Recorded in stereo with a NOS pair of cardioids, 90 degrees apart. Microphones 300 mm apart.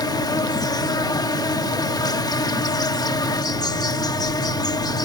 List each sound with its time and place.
0.0 s an insect: 15° left